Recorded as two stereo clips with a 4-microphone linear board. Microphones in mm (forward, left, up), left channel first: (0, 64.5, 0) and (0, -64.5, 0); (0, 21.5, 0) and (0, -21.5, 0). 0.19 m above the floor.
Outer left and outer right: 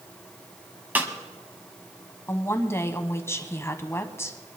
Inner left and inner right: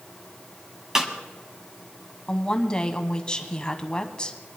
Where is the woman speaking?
20° left (ahead or behind), 1.0 m.